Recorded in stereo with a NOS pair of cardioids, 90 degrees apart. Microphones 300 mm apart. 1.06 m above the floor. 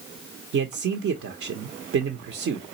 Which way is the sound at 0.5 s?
50° right.